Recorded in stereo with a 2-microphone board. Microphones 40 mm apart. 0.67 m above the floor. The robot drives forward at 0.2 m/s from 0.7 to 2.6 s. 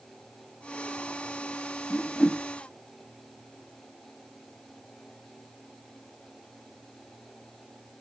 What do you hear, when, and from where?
1.9 s a whoosh: 20° left (ahead or behind), 0.8 m